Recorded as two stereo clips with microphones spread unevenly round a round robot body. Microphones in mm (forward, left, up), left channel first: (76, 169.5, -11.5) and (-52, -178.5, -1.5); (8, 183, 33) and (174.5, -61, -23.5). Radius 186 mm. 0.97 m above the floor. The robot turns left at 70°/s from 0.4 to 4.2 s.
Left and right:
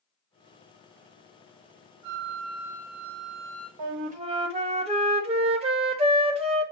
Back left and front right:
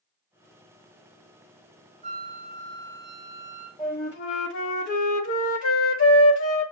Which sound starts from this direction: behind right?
A flute, at 3.8 s.